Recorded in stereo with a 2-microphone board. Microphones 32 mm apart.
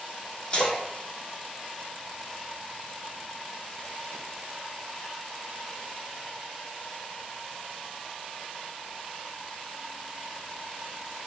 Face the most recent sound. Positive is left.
turn(degrees=35)  # may be behind; listen again after turning